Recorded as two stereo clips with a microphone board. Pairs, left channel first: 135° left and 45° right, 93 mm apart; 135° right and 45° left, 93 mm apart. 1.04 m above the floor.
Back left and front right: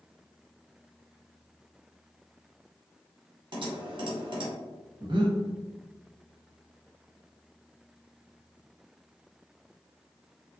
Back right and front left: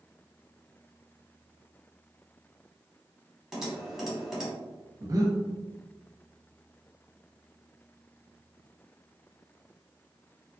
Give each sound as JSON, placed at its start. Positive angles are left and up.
{"t": 3.5, "sound": "typing on a keyboard", "azimuth_deg": -40, "distance_m": 1.4}
{"t": 5.0, "sound": "breathing", "azimuth_deg": -5, "distance_m": 0.8}